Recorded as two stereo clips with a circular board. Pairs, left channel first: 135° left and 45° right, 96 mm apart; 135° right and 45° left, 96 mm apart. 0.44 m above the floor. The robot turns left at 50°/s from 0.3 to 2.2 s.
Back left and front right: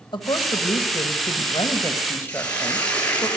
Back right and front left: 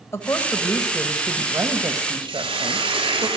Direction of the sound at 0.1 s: 165° left.